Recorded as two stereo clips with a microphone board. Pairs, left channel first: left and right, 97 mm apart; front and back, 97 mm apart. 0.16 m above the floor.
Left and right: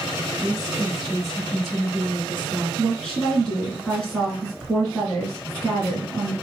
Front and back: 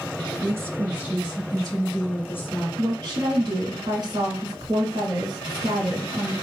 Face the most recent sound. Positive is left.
turn(degrees=170)